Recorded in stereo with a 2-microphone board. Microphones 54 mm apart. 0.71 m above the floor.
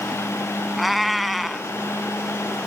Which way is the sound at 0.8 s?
Centre (ahead or behind).